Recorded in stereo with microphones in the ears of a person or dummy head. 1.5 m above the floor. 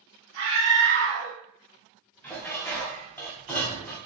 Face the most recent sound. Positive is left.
turn(degrees=5)  # may be behind; listen again after turning